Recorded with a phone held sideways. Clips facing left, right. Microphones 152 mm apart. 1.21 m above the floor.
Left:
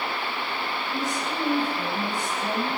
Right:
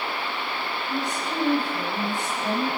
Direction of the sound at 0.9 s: 65° right (ahead or behind).